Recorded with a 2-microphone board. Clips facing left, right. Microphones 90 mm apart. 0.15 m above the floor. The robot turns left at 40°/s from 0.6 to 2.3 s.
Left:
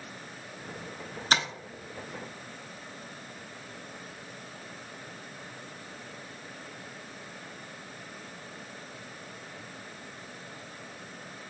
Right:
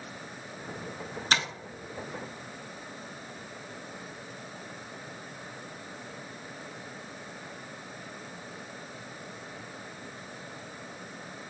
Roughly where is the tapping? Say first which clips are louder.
Left 1 dB; centre.